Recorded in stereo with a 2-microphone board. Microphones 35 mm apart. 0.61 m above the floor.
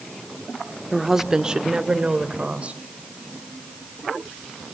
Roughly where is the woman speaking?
Centre.